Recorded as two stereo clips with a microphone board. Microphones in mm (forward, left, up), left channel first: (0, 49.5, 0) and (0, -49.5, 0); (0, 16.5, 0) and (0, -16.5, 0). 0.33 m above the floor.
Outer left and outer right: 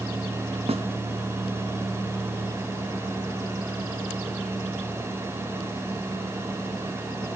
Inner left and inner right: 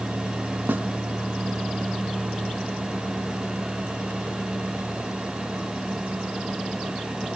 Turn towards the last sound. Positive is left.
turn(degrees=-85)